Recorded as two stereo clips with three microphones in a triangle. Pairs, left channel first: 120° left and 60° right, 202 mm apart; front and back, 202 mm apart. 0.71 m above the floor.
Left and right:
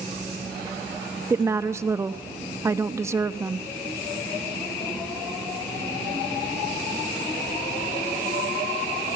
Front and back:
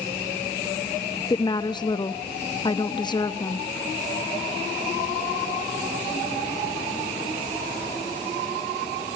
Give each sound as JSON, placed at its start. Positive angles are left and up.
{"t": 1.3, "sound": "a woman speaking", "azimuth_deg": -10, "distance_m": 0.8}